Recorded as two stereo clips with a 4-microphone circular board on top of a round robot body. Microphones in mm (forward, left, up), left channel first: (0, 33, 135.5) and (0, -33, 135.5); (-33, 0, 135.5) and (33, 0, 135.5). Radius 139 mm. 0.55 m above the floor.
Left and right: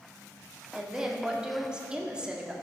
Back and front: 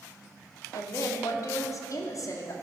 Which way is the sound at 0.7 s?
165° right.